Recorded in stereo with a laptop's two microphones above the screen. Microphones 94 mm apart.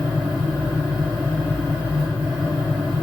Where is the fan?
80° left, 1.2 m.